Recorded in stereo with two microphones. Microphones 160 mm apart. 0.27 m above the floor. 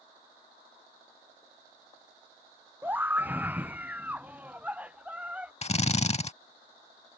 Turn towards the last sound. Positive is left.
turn(degrees=40)  # may be behind; listen again after turning